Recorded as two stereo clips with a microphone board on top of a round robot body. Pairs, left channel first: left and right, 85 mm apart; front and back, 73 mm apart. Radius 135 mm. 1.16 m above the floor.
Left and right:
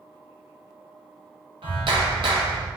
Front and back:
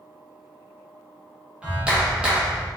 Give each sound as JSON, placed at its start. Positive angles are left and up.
{"t": 1.6, "sound": "a clap", "azimuth_deg": -105, "distance_m": 1.6}